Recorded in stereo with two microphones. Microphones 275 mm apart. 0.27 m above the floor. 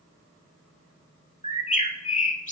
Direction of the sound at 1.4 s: 25° left (ahead or behind).